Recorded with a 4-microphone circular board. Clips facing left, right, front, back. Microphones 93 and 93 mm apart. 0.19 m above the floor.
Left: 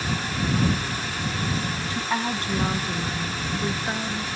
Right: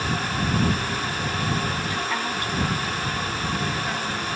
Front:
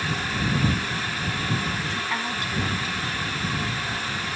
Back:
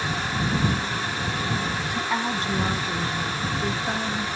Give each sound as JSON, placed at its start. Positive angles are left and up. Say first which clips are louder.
{"t": 1.9, "sound": "a woman speaking", "louder": "even, back 3 dB", "azimuth_deg": 120}